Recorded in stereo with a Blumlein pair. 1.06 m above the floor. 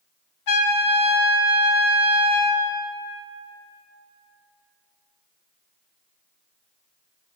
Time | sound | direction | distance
0.5 | a trumpet | 45° left | 0.8 m